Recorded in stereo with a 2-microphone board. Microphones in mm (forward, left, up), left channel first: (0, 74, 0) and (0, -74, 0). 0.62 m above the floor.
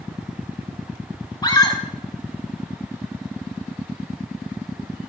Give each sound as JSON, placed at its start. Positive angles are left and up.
{"t": 1.4, "sound": "a scream", "side_deg": 30, "distance_m": 2.5}